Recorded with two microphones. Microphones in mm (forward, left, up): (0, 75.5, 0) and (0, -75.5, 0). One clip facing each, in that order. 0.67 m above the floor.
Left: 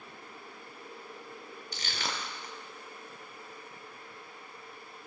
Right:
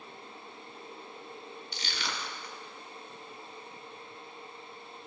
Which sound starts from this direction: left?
Crushing, at 1.7 s.